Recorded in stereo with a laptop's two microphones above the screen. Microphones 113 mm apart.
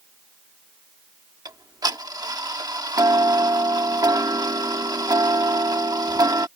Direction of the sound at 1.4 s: 35° right (ahead or behind).